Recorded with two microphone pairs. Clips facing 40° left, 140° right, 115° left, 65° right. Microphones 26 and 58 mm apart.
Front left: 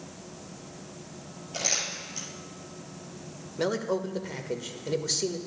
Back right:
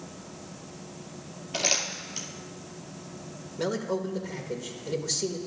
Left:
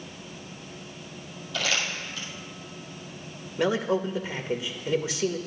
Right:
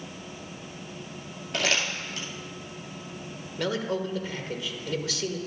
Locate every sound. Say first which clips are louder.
1.5 s crumpling: back right 3 dB, right 1 dB; 80° right, 2 m
3.6 s a man speaking: front left 1 dB, left 4 dB; 90° left, 0.8 m